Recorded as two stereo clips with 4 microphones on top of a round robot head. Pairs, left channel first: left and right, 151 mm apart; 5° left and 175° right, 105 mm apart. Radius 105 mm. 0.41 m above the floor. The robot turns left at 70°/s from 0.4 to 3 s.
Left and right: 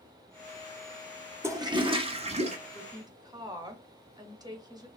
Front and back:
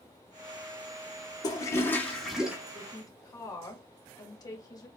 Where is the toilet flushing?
25° right, 1.2 m; by 2.6 s 105° right, 1.2 m.